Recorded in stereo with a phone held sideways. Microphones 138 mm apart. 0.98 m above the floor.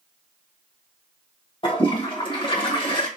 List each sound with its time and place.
1.6 s a toilet flushing: 40° left (ahead or behind), 1.0 m